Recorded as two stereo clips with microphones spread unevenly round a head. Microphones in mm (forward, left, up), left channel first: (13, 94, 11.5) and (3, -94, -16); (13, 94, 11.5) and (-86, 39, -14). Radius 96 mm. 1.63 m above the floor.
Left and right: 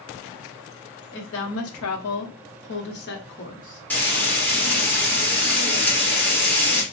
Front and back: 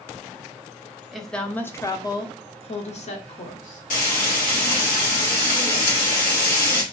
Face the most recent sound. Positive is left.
turn(degrees=5)